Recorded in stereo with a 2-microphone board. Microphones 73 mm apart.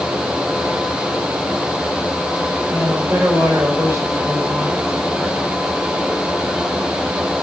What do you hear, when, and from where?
2.7 s a woman speaking: 40° right (ahead or behind), 8.5 m